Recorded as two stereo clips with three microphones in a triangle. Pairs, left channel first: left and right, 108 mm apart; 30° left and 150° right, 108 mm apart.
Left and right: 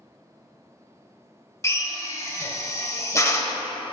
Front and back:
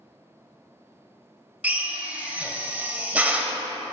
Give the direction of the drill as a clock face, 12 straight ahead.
7 o'clock.